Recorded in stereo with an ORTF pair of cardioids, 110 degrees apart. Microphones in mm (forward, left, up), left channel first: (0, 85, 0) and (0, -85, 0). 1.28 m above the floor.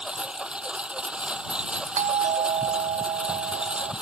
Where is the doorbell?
50° right.